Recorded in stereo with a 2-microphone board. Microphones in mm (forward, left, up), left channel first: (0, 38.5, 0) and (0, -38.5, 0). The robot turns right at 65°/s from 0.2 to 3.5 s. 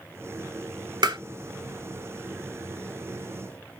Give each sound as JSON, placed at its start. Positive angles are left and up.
{"t": 1.0, "sound": "tapping", "side_deg": -75, "distance_m": 0.7}